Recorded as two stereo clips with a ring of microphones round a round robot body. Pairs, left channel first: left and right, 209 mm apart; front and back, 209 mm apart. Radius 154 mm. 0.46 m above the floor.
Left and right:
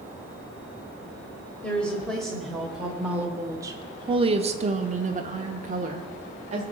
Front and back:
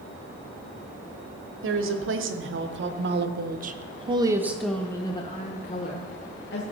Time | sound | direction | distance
1.6 | a woman speaking | 175° left | 1.7 m